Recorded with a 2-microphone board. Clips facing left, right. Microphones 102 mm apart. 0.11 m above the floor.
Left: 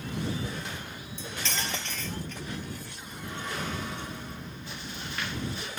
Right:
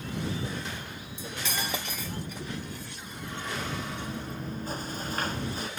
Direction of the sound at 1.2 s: 10° right (ahead or behind).